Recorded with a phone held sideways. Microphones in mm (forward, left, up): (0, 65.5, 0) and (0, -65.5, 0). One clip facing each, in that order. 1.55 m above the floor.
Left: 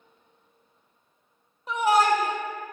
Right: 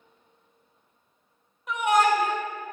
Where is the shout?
30° left (ahead or behind), 1.0 m.